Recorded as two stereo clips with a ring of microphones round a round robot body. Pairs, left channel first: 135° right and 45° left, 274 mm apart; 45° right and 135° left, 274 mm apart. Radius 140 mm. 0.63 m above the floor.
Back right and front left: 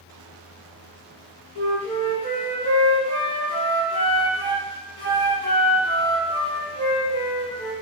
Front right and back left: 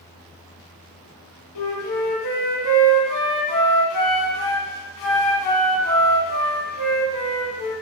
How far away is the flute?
About 2 m.